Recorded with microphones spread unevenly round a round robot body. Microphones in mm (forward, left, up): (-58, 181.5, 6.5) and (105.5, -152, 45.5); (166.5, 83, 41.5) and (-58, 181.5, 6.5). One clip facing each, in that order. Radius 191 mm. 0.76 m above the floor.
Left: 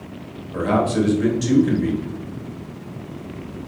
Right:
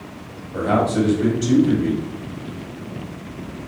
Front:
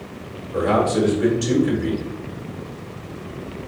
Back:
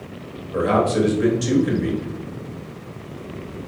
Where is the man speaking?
100° left, 1.5 m.